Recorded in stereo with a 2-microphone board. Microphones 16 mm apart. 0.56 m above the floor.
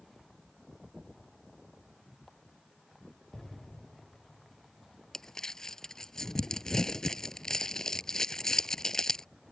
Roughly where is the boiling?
No boiling in this recording.